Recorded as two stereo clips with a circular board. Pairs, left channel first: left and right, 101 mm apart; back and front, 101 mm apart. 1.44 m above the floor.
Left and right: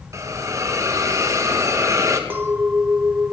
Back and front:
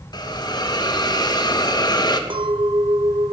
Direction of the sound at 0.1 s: 145° right.